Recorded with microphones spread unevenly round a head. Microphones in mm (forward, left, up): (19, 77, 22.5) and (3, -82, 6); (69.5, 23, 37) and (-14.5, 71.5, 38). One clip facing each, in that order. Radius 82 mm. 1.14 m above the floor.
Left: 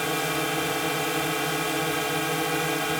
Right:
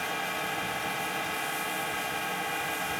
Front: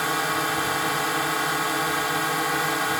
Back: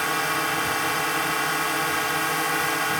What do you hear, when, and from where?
0.0 s a drone: 55° left